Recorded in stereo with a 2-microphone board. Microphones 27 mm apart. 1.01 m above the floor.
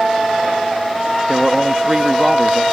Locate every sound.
1.3 s a man speaking: 20° right (ahead or behind)